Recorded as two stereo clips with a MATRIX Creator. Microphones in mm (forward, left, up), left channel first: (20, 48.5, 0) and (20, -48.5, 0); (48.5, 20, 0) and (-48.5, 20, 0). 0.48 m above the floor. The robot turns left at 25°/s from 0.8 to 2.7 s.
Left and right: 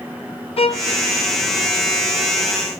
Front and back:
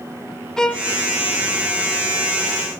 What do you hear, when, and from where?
0.6 s a violin: 85° left, 0.6 m